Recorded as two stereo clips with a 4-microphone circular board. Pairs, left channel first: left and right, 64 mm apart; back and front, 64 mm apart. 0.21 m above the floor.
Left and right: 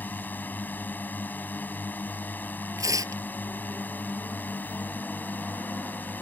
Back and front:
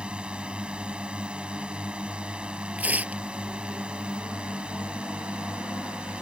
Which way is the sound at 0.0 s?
60° left.